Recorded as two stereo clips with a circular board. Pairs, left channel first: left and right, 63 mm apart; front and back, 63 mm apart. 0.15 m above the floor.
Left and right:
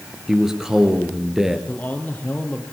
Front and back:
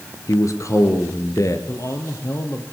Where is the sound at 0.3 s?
10° right, 3 m.